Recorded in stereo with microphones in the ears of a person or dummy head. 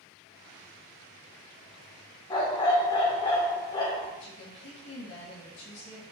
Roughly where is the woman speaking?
Left.